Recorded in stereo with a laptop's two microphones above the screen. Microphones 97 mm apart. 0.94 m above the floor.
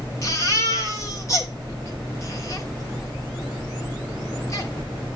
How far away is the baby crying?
About 1.4 m.